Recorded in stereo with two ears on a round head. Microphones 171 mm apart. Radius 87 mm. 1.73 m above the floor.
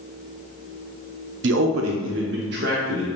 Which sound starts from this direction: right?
A man speaking, at 1.4 s.